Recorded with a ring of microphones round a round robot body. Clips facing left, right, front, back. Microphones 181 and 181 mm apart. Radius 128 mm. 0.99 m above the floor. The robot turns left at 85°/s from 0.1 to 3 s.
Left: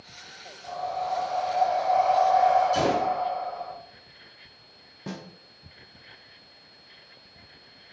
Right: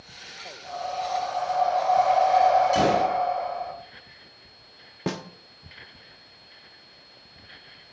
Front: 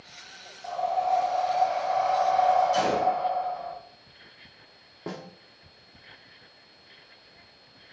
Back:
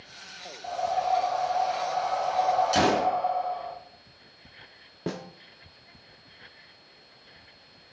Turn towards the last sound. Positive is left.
turn(degrees=-115)